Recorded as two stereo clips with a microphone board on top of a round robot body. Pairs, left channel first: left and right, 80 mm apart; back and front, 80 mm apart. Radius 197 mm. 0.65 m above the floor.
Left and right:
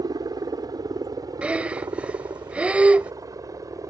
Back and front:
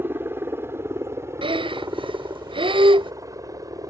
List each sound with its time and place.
0.0 s a helicopter: 60° right; by 3.9 s 45° right
1.4 s breathing: 15° right